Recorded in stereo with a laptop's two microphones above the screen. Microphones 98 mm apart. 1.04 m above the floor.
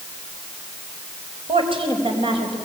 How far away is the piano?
No piano in this recording.